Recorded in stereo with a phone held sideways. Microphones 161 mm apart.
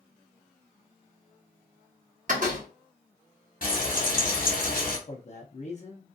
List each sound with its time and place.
2.3 s a door slam: 55° right (ahead or behind), 1.0 m
3.6 s frying: 60° left (ahead or behind), 1.0 m
5.1 s a man speaking: 45° left (ahead or behind), 0.5 m